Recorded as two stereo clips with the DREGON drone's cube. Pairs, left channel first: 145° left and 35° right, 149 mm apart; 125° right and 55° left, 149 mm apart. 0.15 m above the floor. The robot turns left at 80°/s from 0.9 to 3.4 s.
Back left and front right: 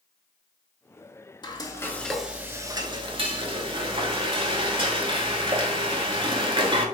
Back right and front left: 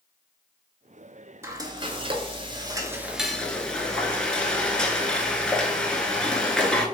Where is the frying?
115° left, 0.5 m; by 6.8 s 45° right, 0.5 m.